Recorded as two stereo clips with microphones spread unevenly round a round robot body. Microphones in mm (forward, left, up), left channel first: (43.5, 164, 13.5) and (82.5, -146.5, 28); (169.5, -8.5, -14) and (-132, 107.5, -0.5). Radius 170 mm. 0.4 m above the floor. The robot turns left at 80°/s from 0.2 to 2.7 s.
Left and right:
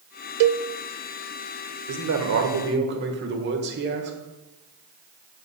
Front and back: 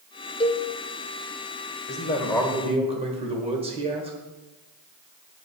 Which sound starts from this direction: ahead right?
A man speaking, at 1.9 s.